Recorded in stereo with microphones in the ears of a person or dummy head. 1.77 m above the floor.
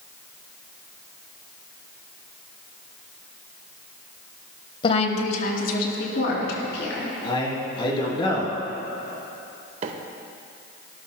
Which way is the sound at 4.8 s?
30° left (ahead or behind).